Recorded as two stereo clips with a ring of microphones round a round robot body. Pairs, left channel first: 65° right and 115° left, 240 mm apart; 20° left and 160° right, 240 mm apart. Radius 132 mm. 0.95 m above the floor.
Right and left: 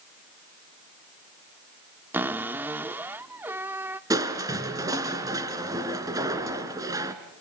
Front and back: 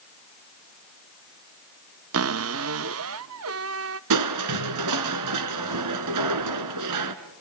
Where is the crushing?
170° right, 2 m.